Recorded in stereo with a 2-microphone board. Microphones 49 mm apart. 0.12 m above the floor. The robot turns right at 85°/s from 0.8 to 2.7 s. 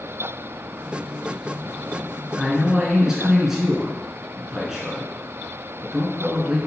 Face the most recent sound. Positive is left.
turn(degrees=-10)  # may be behind; listen again after turning